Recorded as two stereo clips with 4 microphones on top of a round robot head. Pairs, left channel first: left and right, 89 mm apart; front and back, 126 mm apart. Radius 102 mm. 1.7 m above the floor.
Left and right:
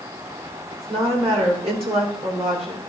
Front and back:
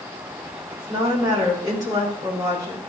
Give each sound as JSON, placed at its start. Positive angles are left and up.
{"t": 0.7, "sound": "a woman speaking", "azimuth_deg": -110, "distance_m": 6.0}